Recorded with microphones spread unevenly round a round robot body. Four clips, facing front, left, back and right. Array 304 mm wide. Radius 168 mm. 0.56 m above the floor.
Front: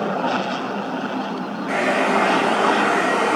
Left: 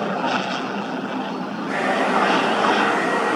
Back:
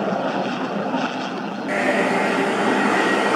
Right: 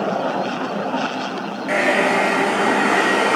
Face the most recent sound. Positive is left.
turn(degrees=-105)